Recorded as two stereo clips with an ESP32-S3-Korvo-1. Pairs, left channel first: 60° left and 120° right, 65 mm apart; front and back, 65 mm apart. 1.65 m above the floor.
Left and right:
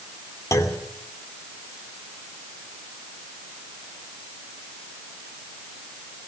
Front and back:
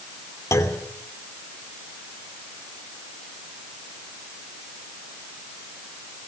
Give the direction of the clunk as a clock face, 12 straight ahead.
11 o'clock.